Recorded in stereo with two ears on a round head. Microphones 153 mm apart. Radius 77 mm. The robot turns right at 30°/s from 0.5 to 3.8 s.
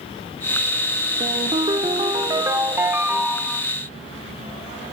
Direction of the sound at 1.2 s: 75° right.